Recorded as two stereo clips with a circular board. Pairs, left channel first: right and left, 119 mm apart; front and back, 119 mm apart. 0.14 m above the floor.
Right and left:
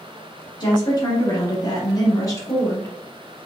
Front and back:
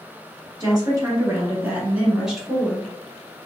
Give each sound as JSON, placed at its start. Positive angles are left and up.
{"t": 0.6, "sound": "a woman speaking", "azimuth_deg": -135, "distance_m": 1.6}